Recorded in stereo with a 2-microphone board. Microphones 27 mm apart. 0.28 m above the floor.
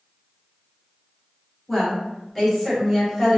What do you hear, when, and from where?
1.7 s a woman speaking: 10° left (ahead or behind), 1.5 m; by 3.4 s centre (ahead or behind), 1.2 m